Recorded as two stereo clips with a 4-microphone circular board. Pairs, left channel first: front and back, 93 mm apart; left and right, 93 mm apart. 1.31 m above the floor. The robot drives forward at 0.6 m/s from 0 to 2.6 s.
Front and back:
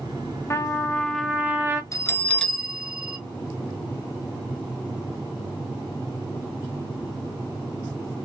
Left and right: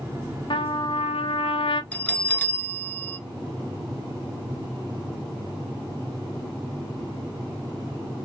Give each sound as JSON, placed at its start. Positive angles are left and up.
{"t": 0.5, "sound": "a trumpet", "azimuth_deg": 60, "distance_m": 0.8}
{"t": 1.9, "sound": "a bell", "azimuth_deg": 25, "distance_m": 0.7}